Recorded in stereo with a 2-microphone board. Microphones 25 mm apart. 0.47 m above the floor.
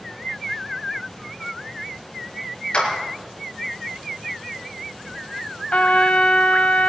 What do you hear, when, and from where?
2.7 s a clap: 45° left (ahead or behind), 6.5 m
5.7 s a trumpet: 65° left (ahead or behind), 0.9 m